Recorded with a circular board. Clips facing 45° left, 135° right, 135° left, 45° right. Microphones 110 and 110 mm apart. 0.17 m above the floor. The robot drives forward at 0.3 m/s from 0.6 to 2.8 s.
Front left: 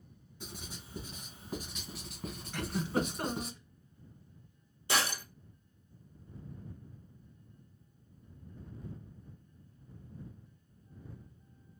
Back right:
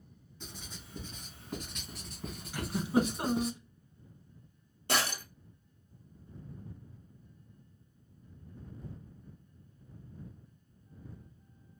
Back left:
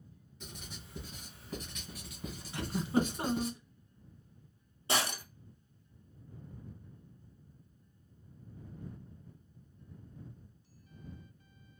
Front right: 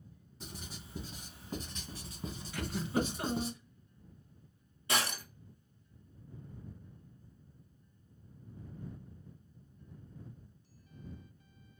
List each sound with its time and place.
0.4 s writing: 25° right, 1.9 m; by 3.5 s 50° right, 1.7 m
2.5 s a giggle: 155° left, 0.7 m; by 3.6 s 160° left, 0.7 m
4.9 s breaking glass: 165° right, 1.5 m